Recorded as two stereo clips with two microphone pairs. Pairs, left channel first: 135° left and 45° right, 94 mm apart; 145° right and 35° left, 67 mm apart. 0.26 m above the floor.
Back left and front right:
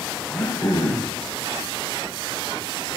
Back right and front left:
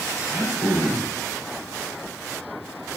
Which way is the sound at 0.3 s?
160° left.